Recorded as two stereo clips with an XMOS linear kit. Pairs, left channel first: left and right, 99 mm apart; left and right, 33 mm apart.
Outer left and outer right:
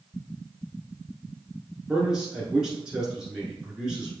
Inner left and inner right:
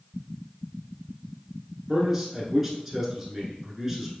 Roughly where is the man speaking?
Centre.